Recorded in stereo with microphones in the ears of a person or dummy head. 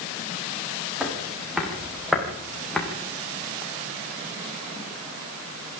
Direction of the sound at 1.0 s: 5° right (ahead or behind).